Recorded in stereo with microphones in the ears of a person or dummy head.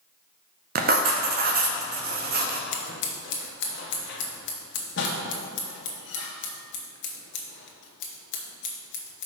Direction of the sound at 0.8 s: 50° right (ahead or behind).